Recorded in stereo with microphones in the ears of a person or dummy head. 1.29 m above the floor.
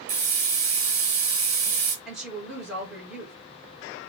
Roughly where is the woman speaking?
Centre.